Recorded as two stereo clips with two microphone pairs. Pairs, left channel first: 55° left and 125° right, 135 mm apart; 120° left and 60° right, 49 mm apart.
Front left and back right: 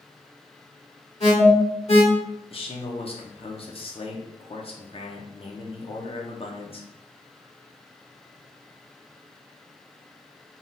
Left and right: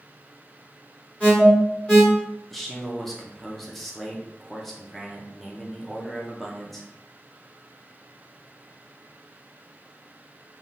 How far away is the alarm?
About 1.6 m.